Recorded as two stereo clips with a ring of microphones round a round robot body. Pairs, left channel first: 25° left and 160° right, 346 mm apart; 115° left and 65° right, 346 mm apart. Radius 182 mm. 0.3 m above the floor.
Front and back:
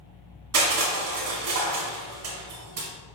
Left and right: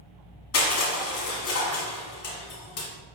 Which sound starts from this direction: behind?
Crushing, at 0.5 s.